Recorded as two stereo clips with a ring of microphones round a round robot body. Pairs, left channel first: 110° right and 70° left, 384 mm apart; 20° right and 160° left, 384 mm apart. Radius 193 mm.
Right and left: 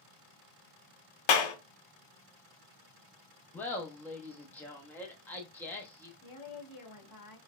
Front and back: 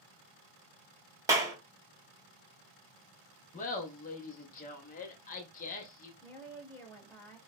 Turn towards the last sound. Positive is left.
turn(degrees=-105)